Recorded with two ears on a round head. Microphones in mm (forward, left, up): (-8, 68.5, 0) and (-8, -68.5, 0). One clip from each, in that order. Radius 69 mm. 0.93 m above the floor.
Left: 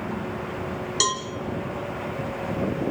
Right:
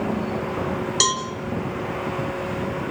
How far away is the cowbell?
About 1.7 m.